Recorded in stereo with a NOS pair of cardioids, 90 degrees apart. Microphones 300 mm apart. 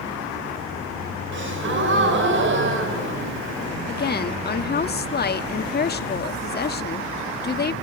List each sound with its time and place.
1.3 s a gasp: 40° right, 5 m
3.9 s a woman speaking: 35° left, 1.7 m